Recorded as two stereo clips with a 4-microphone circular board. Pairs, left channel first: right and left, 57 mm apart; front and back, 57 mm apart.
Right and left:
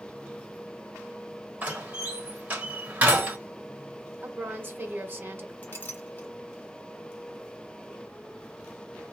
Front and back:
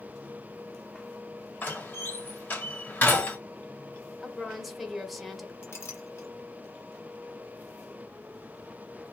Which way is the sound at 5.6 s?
40° right.